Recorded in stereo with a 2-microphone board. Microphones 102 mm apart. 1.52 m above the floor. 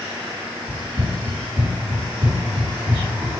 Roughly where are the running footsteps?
Centre.